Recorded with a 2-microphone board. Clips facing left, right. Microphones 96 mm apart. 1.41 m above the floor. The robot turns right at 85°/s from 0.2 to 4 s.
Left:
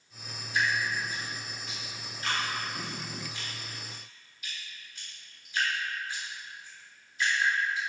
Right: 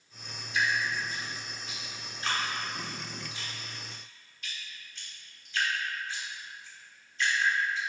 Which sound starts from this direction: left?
Dripping, at 0.5 s.